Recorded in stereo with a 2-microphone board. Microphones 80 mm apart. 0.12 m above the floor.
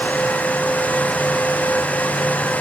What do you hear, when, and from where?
Only background noise.